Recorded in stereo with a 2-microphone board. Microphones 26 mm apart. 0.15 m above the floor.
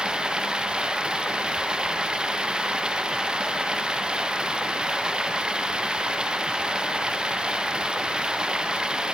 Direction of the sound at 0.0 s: 35° right (ahead or behind).